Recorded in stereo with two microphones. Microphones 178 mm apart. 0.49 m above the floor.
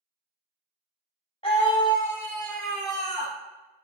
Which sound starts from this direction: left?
A scream, at 1.4 s.